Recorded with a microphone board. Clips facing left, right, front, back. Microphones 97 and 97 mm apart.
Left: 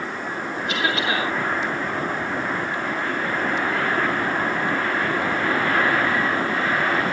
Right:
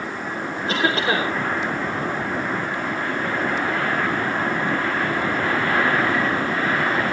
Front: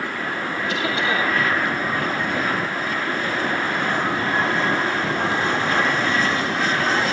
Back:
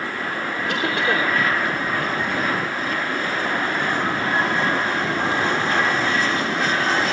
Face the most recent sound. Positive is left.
turn(degrees=-145)